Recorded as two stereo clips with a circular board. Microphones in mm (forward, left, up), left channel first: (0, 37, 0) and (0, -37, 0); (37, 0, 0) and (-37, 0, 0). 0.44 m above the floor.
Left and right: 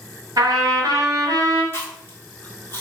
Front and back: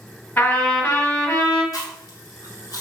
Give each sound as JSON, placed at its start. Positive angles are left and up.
{"t": 0.4, "sound": "a trumpet", "azimuth_deg": -60, "distance_m": 1.4}
{"t": 1.7, "sound": "chewing", "azimuth_deg": 30, "distance_m": 0.9}